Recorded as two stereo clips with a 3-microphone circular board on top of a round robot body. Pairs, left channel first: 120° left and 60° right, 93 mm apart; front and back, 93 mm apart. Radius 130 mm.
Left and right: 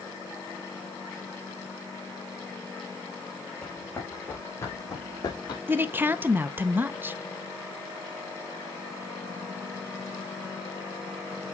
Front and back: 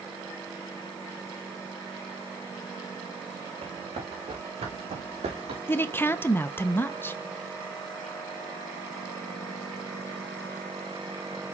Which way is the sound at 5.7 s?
30° right.